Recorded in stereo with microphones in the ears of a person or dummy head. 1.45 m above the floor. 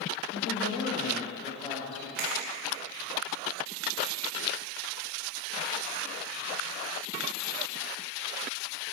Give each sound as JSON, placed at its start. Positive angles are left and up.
{"t": 0.3, "sound": "a man speaking", "side_deg": 85, "distance_m": 1.2}
{"t": 2.2, "sound": "a finger snap", "side_deg": -10, "distance_m": 1.8}